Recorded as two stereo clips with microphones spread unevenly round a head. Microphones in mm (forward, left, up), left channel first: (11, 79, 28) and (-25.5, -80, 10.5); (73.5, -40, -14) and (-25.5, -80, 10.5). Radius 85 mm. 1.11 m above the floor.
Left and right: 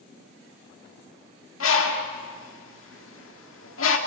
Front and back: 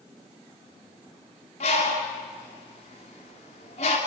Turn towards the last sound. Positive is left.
turn(degrees=75)